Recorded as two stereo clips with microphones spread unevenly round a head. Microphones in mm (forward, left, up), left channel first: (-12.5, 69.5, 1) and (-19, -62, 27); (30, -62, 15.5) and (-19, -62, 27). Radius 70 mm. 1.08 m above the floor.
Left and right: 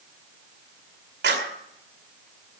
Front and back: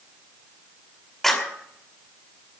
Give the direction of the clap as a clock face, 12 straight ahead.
3 o'clock.